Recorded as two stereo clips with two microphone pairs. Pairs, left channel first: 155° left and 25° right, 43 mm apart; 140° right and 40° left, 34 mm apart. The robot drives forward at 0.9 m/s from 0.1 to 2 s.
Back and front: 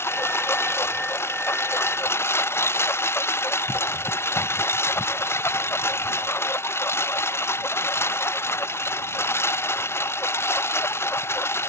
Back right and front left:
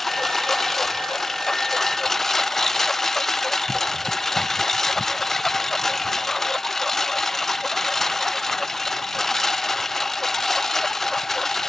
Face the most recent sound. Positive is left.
turn(degrees=140)